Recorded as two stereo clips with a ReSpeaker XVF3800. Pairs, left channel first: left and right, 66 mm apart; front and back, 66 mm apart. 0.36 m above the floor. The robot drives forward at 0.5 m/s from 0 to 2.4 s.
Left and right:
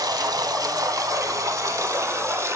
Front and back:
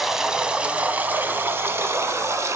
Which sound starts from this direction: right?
Running water, at 0.0 s.